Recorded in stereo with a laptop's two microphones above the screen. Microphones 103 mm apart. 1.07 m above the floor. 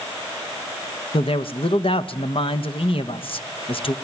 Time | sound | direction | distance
1.1 | a man speaking | 60° left (ahead or behind) | 1.0 m